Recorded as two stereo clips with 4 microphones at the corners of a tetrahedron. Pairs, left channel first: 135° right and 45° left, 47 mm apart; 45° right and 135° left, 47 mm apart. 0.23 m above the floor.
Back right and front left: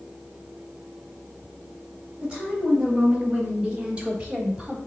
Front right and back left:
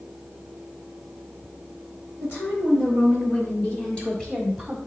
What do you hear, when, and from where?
2.2 s a woman speaking: 20° right, 2.5 m; by 4.8 s 75° left, 1.2 m